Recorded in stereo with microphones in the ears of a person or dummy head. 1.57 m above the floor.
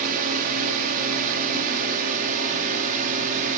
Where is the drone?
50° right (ahead or behind).